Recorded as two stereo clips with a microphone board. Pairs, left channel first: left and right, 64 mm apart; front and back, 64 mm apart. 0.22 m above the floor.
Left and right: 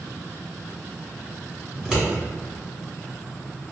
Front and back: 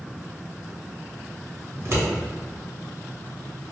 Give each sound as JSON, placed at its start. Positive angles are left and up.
{"t": 1.7, "sound": "scissors", "azimuth_deg": -165, "distance_m": 2.0}